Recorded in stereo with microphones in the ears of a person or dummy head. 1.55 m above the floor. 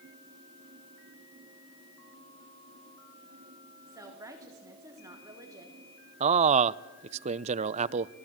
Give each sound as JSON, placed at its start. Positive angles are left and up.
{"t": 3.9, "sound": "a woman speaking", "side_deg": -15, "distance_m": 3.5}
{"t": 6.2, "sound": "a man speaking", "side_deg": -40, "distance_m": 0.7}